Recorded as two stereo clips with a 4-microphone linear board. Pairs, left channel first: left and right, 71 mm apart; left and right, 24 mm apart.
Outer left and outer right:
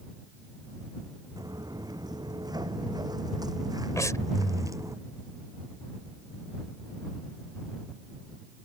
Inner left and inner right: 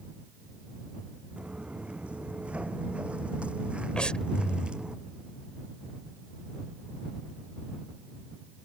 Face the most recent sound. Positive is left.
turn(degrees=50)  # may be behind; listen again after turning